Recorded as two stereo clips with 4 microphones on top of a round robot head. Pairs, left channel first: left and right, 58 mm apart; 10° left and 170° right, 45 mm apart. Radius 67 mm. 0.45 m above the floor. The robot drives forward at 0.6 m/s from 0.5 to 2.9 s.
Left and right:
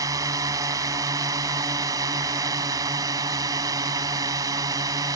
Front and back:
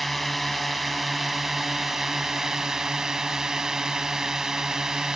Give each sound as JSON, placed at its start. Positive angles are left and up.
{"t": 0.0, "sound": "a drone", "azimuth_deg": -80}